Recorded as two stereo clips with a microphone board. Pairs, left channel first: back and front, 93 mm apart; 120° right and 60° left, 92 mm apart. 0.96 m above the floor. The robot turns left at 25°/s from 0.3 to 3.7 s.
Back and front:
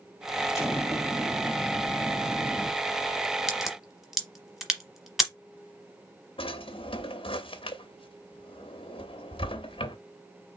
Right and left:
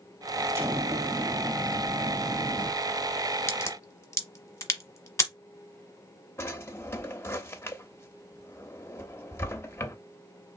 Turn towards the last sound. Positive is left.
turn(degrees=175)